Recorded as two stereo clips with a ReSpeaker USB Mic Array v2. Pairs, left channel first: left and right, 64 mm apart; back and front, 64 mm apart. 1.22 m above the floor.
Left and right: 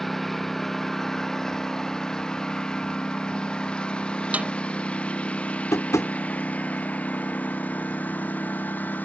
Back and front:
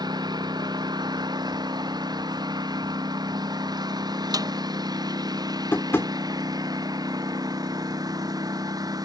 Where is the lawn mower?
5° left; by 9.1 s 25° left.